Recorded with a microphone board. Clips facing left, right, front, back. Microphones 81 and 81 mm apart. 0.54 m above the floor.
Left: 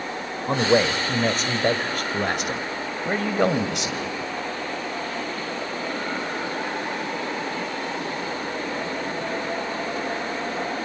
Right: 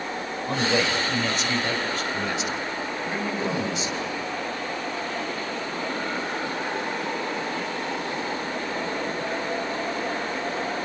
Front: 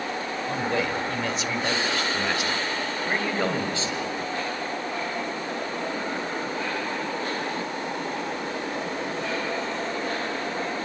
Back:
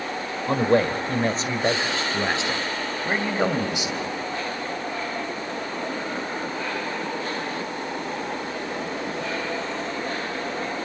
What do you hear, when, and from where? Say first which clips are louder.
0.5 s a man speaking: left 5 dB, back 8 dB; 145° left, 2 m; by 4.1 s 105° left, 3 m